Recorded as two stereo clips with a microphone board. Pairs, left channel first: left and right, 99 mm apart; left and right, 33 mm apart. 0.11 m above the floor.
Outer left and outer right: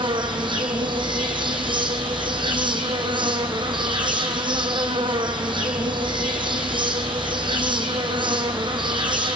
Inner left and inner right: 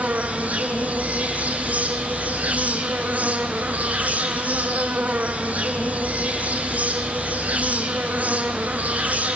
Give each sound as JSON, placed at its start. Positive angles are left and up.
{"t": 0.0, "sound": "an insect", "side_deg": -55, "distance_m": 1.6}